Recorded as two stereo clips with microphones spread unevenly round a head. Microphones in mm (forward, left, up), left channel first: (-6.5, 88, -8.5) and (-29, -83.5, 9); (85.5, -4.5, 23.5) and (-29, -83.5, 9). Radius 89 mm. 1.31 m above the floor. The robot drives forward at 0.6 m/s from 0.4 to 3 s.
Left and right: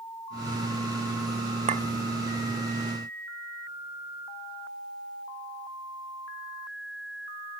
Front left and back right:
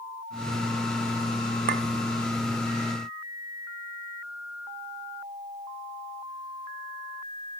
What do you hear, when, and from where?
1.7 s a clink: 140° right, 0.5 m; by 1.8 s 145° right, 0.6 m